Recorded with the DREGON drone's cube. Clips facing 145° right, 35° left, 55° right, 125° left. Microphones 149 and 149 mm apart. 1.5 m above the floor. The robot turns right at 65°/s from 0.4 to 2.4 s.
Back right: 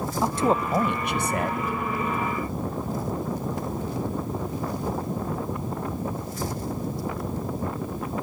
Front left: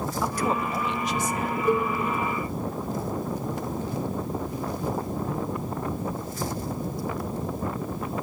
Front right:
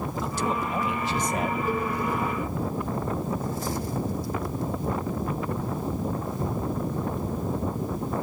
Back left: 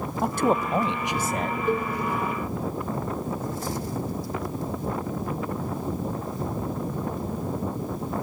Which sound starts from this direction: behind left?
A man speaking, at 0.2 s.